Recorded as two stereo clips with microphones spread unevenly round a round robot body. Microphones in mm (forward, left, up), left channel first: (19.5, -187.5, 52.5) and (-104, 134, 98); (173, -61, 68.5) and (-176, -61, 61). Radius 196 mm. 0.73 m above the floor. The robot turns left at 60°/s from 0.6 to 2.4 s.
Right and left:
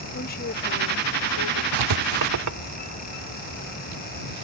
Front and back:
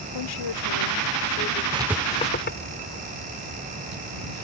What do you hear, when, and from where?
0.1 s a woman speaking: 5° right; by 1.6 s 70° right
1.7 s writing: 105° left; by 4.4 s 65° left